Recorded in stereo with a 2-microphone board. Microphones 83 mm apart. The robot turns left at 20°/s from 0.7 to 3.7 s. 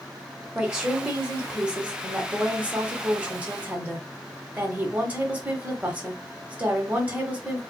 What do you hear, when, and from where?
0.6 s a woman speaking: 10° right (ahead or behind), 0.9 m; by 7.6 s 20° right (ahead or behind), 0.9 m